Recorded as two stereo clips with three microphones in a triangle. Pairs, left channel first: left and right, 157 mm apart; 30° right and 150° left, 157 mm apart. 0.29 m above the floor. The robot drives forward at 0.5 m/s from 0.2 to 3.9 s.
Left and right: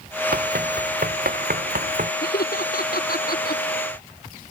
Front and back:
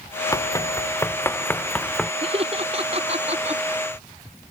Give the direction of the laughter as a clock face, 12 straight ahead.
9 o'clock.